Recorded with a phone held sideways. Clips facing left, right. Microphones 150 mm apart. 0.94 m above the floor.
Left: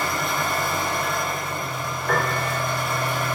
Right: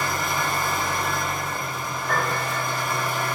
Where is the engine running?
60° left (ahead or behind), 4 m.